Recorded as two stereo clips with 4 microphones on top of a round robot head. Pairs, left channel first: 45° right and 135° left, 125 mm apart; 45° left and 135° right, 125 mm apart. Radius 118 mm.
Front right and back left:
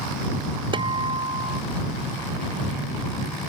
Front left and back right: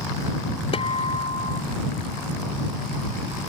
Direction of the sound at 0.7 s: 85° left.